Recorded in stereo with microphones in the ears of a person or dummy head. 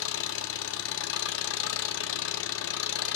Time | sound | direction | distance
0.0 | an engine running | 70° left (ahead or behind) | 1.0 m